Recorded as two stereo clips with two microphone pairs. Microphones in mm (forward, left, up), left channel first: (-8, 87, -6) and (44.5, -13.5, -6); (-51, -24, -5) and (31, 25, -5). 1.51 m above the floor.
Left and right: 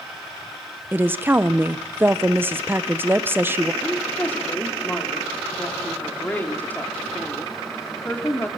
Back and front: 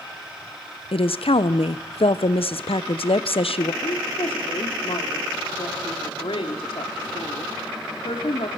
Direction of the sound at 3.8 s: 170° right.